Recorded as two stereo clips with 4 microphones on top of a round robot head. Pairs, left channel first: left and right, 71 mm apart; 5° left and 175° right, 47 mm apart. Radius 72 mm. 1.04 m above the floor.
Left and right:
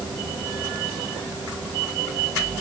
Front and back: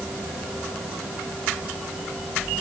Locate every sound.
Only background noise.